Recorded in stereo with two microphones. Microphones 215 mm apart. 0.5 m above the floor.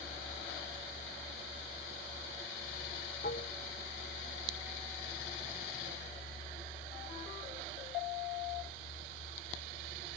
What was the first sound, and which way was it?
Dishes clattering, 50° left (ahead or behind).